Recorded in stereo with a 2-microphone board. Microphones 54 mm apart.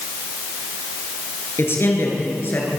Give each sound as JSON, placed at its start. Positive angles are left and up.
{"t": 1.6, "sound": "a man speaking", "side_deg": 45, "distance_m": 7.0}